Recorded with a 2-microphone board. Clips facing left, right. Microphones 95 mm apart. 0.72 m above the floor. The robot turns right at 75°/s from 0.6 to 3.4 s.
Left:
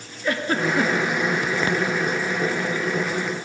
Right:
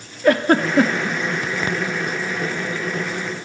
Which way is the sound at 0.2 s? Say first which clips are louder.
Right 7 dB; 65° right (ahead or behind).